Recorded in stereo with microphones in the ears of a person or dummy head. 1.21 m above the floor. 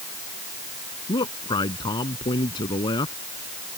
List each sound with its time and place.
1.1 s a man speaking: 20° left (ahead or behind)